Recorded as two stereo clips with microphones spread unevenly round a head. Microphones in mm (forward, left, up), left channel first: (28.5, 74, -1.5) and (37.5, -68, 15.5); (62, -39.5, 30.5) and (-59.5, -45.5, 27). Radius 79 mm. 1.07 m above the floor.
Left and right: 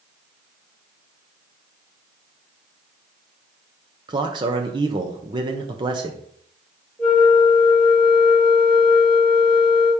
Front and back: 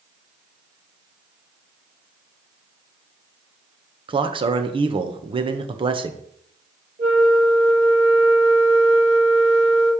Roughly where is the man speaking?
Behind right.